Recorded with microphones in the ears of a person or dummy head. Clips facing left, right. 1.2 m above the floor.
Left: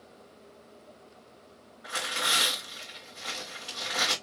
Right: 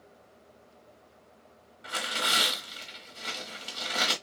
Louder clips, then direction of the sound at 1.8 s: Right 1 dB; 25° right (ahead or behind).